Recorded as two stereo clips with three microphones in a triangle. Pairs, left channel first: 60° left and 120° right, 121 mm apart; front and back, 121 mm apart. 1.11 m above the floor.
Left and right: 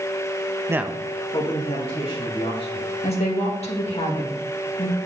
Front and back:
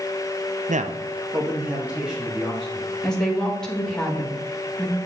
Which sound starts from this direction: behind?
A man speaking, at 0.7 s.